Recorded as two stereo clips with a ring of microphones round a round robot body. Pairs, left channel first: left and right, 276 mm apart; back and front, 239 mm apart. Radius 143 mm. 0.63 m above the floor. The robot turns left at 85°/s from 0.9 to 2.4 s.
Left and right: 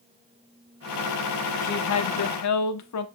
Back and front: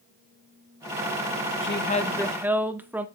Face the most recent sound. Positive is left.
turn(degrees=80)